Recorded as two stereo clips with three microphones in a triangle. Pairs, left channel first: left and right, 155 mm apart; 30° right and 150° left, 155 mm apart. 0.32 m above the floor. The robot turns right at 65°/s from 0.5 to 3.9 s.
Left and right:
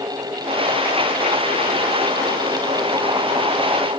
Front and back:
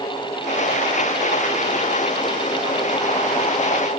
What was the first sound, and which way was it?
Only background noise.